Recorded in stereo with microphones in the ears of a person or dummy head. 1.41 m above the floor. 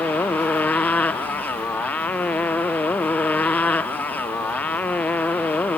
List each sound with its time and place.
0.0 s a motorcycle: 5° left (ahead or behind)